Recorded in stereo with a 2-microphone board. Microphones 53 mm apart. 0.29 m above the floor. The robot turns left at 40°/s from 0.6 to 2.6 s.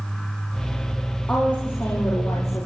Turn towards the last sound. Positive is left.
turn(degrees=100)